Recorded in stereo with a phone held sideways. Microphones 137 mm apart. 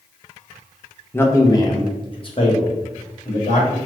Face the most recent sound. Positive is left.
turn(degrees=55)  # may be behind; listen again after turning